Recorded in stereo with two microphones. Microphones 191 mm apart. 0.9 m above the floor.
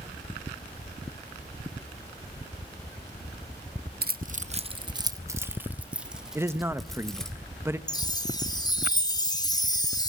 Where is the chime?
20° left (ahead or behind), 0.6 m.